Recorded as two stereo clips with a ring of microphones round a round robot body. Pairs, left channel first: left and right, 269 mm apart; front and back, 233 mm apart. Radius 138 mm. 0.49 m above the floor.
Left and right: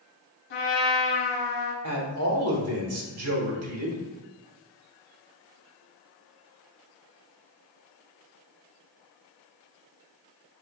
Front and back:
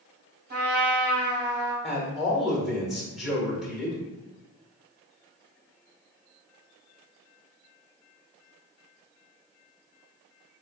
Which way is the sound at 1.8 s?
90° right.